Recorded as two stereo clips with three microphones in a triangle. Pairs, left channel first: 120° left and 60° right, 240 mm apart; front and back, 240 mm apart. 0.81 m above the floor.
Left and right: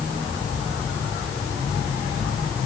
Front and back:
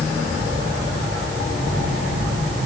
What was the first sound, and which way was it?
Only background noise.